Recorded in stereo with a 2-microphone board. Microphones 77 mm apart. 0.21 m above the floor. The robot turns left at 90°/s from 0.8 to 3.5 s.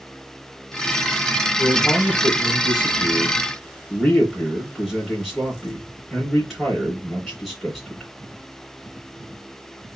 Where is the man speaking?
175° right, 2.5 m; by 8.1 s 10° left, 2.5 m.